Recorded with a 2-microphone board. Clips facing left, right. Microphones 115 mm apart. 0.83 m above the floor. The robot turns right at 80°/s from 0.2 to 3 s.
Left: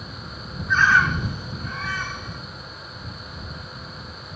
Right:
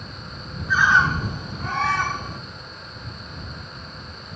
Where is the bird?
Straight behind; by 2.4 s 40° right.